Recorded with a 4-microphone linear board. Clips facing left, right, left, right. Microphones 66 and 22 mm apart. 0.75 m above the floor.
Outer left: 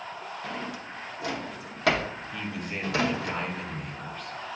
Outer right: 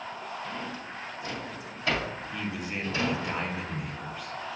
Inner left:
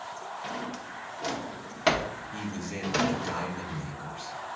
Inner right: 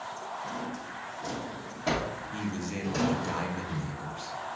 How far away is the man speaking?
About 0.8 m.